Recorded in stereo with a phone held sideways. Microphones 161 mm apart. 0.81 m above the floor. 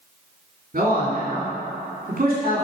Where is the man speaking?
55° right (ahead or behind), 2 m.